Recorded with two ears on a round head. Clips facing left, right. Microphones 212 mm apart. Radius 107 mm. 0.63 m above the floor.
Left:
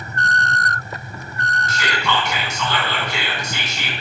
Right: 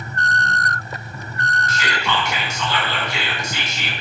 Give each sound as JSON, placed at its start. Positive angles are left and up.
{"t": 1.7, "sound": "whispering", "side_deg": 70, "distance_m": 4.5}